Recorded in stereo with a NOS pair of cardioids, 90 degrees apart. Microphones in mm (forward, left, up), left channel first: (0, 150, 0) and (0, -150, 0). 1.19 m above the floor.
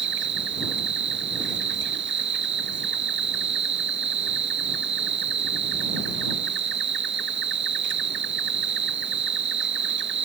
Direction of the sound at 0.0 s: 40° right.